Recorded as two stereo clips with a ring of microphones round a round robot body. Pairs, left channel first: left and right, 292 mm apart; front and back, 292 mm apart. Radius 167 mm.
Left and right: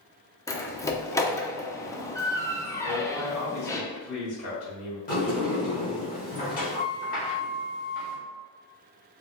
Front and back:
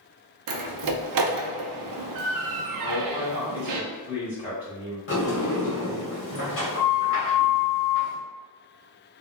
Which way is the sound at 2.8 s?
75° left.